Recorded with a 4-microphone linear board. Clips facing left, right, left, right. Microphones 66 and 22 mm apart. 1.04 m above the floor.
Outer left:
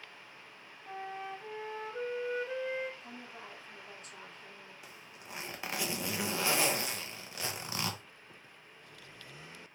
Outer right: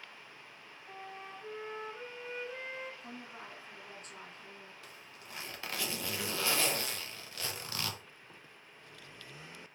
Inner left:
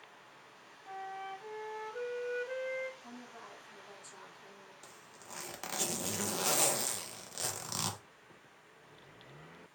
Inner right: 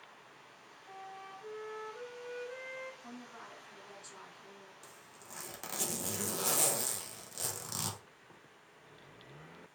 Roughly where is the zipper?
Centre.